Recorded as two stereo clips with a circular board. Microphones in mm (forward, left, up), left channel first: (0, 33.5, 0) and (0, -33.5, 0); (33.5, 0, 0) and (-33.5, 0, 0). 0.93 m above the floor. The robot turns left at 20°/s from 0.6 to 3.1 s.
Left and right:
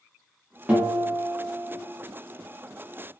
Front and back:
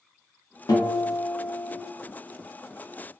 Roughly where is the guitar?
Ahead.